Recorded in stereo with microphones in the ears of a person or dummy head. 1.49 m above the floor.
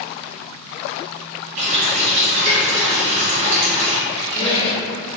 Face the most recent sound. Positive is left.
turn(degrees=25)  # may be behind; listen again after turning